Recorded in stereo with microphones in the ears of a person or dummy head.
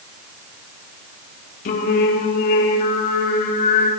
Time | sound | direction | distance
1.6 | singing | 55° left (ahead or behind) | 3.5 m